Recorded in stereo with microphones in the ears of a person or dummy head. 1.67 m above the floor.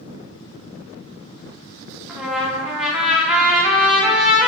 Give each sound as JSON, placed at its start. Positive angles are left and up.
{"t": 2.1, "sound": "a trumpet", "side_deg": 0, "distance_m": 0.5}